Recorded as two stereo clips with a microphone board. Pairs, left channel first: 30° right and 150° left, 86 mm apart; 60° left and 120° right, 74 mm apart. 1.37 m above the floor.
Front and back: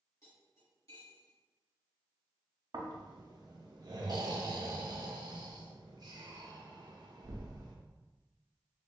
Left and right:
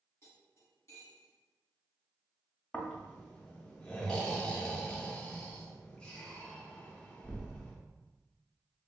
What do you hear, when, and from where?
0.2 s cutlery clinking: 15° left, 1.8 m
2.7 s snoring: 135° left, 0.5 m